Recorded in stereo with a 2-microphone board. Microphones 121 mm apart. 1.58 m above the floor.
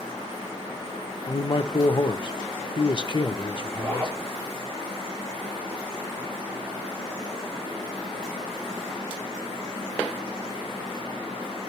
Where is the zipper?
15° right (ahead or behind), 8 m.